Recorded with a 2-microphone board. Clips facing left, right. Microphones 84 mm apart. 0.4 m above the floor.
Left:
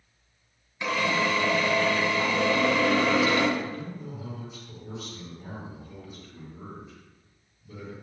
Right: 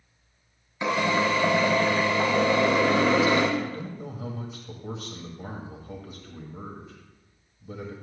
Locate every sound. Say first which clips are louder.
0.8 s a drill: right 2 dB; 25° right (ahead or behind), 1.1 m
3.6 s a man speaking: right 2 dB; 55° right (ahead or behind), 1.7 m